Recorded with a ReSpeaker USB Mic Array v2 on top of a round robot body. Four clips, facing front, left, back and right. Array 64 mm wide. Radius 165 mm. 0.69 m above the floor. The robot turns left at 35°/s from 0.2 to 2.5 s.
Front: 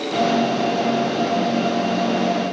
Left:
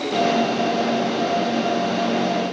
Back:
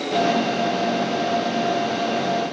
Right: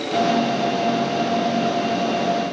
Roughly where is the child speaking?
No child speaking in this recording.